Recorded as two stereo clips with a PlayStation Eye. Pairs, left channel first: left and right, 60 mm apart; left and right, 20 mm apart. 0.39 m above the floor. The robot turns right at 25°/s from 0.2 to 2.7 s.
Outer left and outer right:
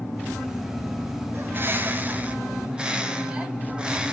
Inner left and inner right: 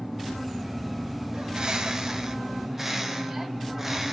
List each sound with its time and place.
1.3 s a bird: 55° right, 0.9 m; by 4.1 s 20° right, 0.9 m